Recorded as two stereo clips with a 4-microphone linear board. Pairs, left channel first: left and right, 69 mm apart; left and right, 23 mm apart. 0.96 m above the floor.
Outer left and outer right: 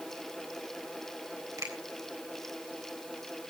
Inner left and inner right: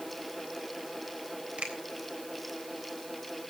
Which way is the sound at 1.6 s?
65° right (ahead or behind).